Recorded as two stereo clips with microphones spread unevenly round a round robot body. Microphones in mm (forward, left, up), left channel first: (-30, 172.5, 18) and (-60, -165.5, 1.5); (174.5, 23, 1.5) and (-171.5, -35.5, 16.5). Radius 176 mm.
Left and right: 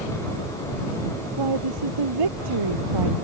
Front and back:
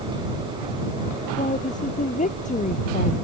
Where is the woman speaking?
60° right.